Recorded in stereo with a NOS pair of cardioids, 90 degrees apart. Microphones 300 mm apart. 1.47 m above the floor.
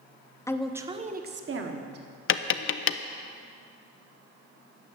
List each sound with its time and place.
0.5 s a woman speaking: 10° left, 0.8 m; by 2.1 s 55° right, 1.6 m
2.3 s tapping: 45° left, 0.5 m